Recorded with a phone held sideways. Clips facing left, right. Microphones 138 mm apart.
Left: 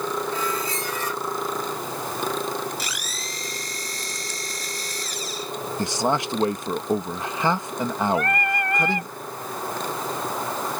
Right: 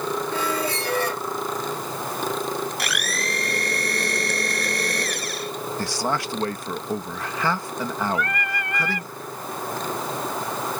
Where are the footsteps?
I don't hear footsteps.